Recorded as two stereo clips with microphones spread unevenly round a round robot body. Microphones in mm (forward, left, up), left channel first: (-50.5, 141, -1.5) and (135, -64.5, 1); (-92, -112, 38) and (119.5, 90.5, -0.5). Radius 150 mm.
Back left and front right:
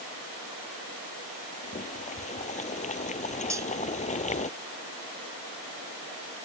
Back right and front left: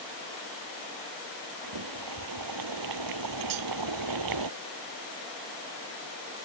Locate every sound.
1.6 s boiling: 65° left
3.5 s cutlery clinking: 30° left